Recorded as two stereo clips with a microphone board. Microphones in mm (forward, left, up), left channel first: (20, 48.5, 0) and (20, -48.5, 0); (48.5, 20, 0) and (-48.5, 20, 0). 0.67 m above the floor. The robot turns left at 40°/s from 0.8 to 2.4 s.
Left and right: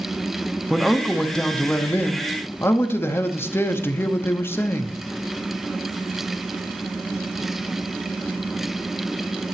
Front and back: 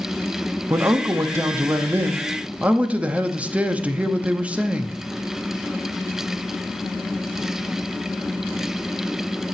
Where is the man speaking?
175° right, 0.8 m; by 5.0 s 120° left, 0.8 m.